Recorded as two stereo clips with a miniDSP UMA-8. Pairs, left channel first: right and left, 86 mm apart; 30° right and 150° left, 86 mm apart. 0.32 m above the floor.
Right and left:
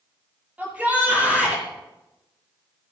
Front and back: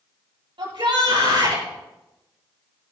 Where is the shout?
165° left, 7.5 m.